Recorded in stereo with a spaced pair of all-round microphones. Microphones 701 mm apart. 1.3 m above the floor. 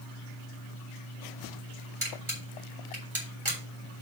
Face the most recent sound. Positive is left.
turn(degrees=-45)  # may be behind; listen again after turning